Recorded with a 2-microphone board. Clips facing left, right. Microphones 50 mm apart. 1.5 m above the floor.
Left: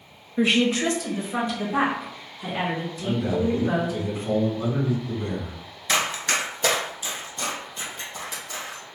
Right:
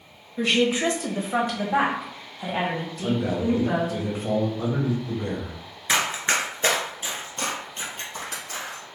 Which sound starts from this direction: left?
A woman speaking, at 0.4 s.